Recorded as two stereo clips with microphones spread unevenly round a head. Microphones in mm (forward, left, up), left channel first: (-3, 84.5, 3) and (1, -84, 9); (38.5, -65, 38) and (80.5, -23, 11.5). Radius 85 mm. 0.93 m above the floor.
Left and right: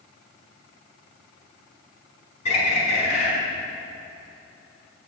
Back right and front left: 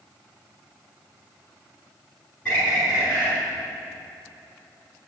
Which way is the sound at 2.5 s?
145° left.